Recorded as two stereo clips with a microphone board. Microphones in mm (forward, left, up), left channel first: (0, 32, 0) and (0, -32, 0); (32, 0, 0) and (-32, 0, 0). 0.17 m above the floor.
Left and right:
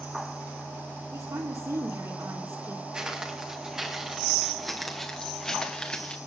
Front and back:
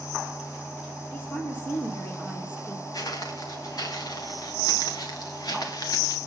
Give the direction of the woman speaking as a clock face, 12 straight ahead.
2 o'clock.